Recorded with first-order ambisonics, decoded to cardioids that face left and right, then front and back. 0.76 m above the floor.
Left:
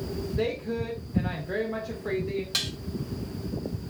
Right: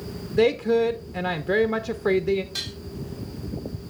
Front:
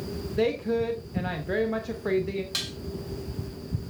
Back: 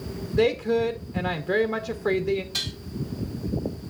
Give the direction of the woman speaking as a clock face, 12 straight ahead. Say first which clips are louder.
Right 11 dB, back 4 dB; 4 o'clock.